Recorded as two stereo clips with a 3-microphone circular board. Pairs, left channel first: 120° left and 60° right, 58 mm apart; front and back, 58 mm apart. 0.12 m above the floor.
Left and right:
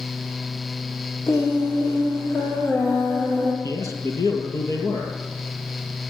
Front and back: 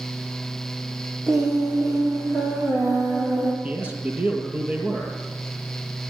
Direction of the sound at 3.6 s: 125° left.